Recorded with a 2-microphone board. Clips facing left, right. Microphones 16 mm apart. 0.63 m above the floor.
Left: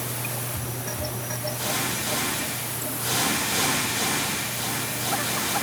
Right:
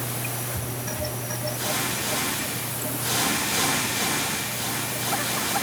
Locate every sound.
Only background noise.